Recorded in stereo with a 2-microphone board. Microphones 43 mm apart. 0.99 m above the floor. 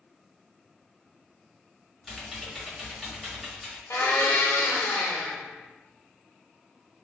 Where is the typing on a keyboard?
Centre (ahead or behind), 1.3 m.